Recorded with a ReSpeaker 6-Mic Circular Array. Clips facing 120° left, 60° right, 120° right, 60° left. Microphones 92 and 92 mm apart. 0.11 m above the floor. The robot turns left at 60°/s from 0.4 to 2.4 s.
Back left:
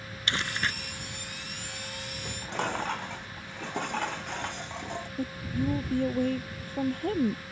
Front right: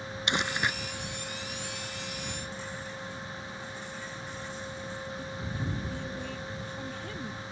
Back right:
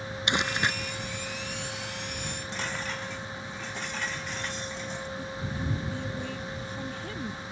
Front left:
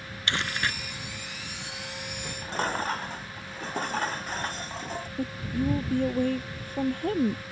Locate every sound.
0.3 s crumpling: 90° right; by 0.7 s 110° right
2.2 s dishes clattering: 115° left; by 5.1 s 105° left
5.2 s a woman speaking: 90° left